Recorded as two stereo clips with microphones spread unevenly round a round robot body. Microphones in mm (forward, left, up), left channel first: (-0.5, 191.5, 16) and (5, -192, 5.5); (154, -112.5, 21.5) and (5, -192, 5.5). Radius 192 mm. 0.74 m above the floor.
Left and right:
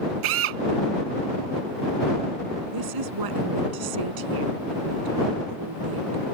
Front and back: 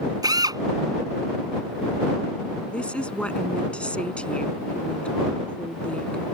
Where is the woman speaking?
55° right.